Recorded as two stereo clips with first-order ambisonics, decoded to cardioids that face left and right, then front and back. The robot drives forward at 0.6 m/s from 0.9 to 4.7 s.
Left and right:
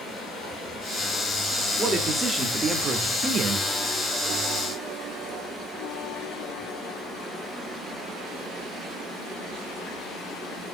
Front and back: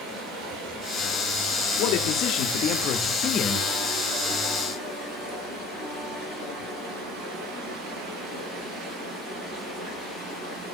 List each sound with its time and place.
0.0 s running water: 150° left, 9 m; by 10.8 s 160° left, 11 m
1.8 s a man speaking: 15° right, 1.8 m; by 3.7 s 50° right, 1.1 m